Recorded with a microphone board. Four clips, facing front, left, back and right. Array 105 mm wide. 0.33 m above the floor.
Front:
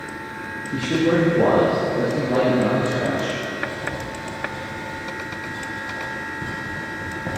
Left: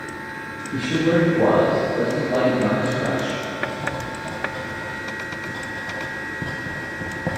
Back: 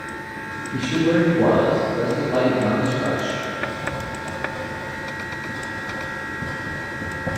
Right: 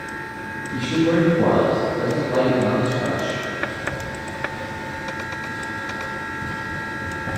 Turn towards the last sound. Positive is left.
turn(degrees=80)